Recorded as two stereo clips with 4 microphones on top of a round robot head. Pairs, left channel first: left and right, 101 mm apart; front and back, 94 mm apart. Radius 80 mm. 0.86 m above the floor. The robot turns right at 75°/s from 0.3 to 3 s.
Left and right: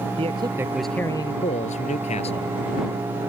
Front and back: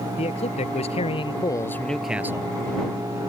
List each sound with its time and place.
0.2 s a man speaking: 40° right; by 2.5 s 130° left